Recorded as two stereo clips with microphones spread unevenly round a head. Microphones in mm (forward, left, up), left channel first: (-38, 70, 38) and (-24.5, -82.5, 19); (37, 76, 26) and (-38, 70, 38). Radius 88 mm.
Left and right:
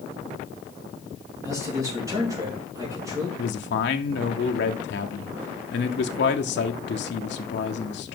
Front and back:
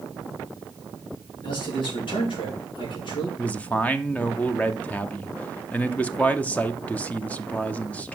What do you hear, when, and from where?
1.4 s a man speaking: 10° right, 2.5 m
3.4 s a man speaking: 75° left, 0.9 m